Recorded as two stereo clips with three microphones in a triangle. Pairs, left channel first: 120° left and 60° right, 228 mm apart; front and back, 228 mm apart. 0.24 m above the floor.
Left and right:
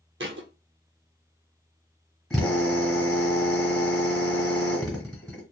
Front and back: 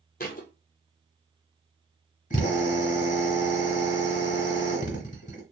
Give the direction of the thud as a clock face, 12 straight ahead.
1 o'clock.